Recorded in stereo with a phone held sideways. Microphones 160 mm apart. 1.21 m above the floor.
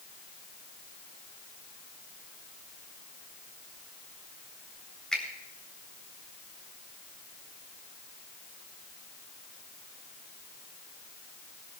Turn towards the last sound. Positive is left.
turn(degrees=5)  # may be behind; listen again after turning